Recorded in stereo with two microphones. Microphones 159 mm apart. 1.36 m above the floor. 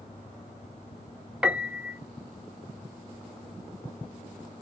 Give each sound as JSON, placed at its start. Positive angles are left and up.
{"t": 1.4, "sound": "a piano", "side_deg": -5, "distance_m": 0.7}